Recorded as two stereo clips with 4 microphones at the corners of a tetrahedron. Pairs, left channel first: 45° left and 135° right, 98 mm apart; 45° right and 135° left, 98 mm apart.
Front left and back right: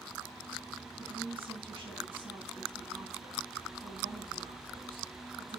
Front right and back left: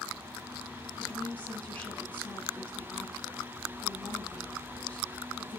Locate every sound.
1.0 s a woman speaking: 120° right, 3.5 m